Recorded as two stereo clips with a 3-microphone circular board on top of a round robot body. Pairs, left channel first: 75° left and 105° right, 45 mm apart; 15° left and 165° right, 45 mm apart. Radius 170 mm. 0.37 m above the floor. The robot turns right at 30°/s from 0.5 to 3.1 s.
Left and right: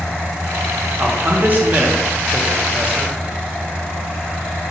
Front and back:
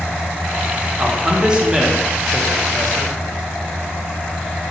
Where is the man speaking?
120° right, 1.2 m; by 3.2 s 55° right, 1.2 m.